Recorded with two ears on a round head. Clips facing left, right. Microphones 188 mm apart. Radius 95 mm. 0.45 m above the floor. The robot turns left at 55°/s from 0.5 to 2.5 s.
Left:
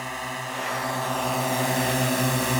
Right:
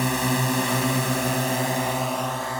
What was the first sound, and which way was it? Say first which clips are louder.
A drone: right 11 dB; 115° right.